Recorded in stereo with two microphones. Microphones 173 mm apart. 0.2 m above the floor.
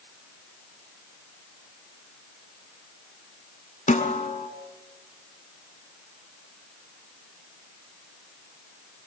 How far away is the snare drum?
About 1.2 m.